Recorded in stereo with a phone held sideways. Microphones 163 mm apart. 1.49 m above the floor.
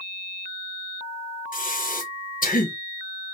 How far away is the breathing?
About 0.8 m.